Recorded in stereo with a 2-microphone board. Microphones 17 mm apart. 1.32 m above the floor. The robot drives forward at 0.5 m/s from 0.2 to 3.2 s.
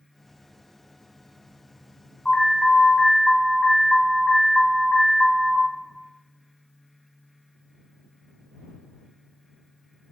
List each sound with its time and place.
2.2 s an alarm: 30° left (ahead or behind), 2.5 m; by 5.7 s 25° left (ahead or behind), 2.5 m